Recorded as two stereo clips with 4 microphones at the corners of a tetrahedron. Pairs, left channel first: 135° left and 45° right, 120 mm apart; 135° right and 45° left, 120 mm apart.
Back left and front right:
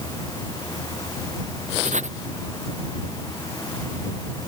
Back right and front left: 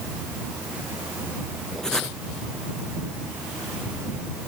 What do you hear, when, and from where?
1.8 s writing: 50° right